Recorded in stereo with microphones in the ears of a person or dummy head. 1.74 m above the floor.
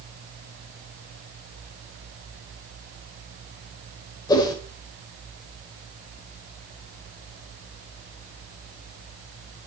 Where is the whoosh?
20° left (ahead or behind), 2.5 m.